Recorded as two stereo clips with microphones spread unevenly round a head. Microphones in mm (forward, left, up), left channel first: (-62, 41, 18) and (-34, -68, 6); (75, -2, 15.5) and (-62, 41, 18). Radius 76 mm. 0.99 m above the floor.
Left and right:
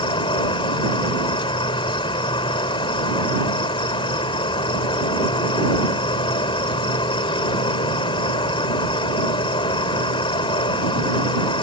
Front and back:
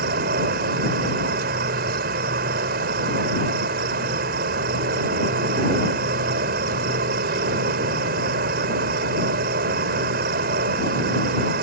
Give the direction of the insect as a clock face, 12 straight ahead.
7 o'clock.